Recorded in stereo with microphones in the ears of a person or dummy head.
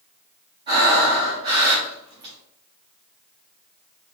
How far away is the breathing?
About 1.3 m.